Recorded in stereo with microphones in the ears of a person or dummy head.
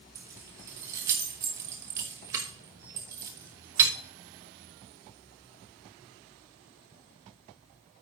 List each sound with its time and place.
0.1 s keys jangling: 15° right (ahead or behind), 1.0 m